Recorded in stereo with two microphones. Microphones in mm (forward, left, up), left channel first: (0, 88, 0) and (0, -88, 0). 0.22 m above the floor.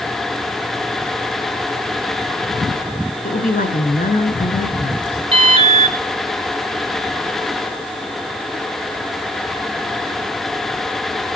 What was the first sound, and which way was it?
A woman speaking, 50° left (ahead or behind).